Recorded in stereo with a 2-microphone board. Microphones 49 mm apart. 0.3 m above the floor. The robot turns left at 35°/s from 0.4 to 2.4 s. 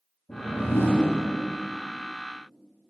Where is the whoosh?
80° left, 2.5 m; by 1.1 s 55° left (ahead or behind), 2.5 m.